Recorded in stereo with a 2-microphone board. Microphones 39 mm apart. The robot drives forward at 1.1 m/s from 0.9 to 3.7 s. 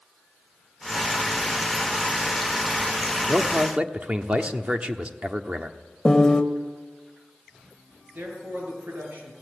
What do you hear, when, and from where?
3.3 s a man speaking: 35° right (ahead or behind), 1.3 m
6.0 s a piano: 20° left (ahead or behind), 1.5 m
8.2 s a man speaking: 65° right (ahead or behind), 8 m